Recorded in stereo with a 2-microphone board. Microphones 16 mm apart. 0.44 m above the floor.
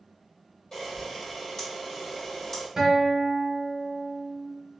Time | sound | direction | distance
0.7 | a camera shutter | 40° left (ahead or behind) | 1.6 m
2.8 | a guitar | 45° right (ahead or behind) | 0.9 m